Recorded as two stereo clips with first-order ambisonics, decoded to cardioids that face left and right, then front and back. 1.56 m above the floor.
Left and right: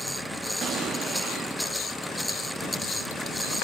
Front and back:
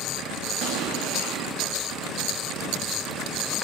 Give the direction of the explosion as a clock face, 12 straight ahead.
5 o'clock.